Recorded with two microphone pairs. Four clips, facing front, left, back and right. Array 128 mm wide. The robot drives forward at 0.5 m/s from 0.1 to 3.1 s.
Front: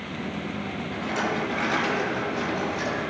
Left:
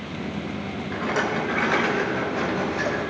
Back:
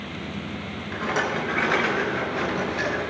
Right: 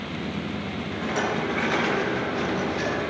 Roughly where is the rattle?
Behind left.